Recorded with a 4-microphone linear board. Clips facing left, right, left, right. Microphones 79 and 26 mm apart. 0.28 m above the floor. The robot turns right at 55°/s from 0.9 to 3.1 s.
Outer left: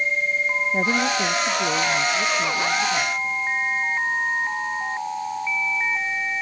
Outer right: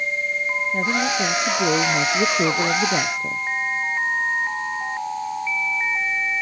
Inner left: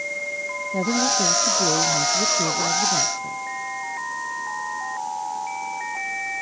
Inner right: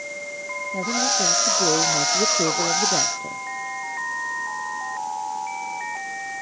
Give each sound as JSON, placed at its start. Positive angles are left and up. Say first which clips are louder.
{"t": 0.7, "sound": "a woman speaking", "louder": "even, inner left 1 dB", "azimuth_deg": 165}